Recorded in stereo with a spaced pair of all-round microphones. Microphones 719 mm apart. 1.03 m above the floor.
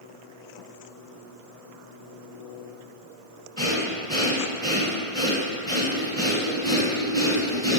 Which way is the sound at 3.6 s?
5° left (ahead or behind).